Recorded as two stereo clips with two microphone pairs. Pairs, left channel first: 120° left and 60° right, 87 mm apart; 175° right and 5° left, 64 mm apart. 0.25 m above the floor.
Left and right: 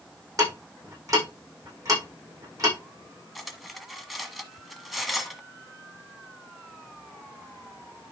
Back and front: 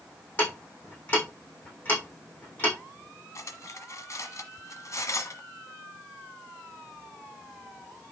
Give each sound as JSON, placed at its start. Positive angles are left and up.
{"t": 0.4, "sound": "ticking", "azimuth_deg": -110, "distance_m": 6.0}
{"t": 3.4, "sound": "cutlery clinking", "azimuth_deg": -150, "distance_m": 1.3}